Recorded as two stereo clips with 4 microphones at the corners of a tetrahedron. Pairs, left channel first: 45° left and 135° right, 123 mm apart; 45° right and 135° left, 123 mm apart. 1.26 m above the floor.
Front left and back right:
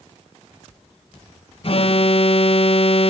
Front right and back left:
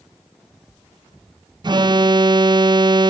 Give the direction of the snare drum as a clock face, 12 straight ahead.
No snare drum in this recording.